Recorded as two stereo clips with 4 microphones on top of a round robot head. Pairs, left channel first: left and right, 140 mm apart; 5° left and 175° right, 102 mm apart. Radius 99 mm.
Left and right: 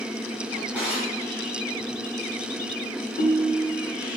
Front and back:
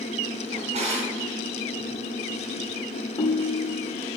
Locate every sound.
0.5 s a drawer: 175° right, 2.5 m
3.2 s a ringtone: 50° left, 1.0 m